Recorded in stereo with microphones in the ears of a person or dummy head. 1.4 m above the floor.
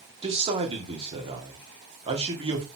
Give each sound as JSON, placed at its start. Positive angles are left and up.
{"t": 0.2, "sound": "a man speaking", "side_deg": -30, "distance_m": 3.0}